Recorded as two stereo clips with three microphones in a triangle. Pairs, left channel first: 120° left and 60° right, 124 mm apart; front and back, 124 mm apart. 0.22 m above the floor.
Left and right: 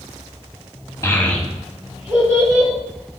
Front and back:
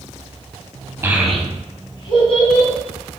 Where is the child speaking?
140° left, 0.7 m; by 2.7 s 5° right, 1.3 m.